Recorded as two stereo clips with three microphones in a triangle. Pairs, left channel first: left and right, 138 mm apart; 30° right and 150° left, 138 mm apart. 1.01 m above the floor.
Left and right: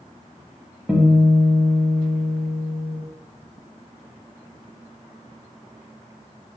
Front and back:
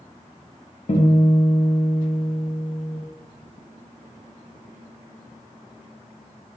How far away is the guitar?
About 0.5 m.